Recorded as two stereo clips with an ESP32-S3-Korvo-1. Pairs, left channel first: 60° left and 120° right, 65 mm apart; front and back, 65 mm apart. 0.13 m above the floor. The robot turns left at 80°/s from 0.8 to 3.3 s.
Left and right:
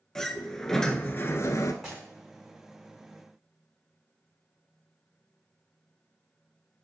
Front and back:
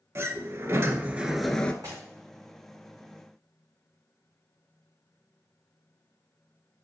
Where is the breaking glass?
155° left, 4 m; by 2.0 s 140° left, 4 m.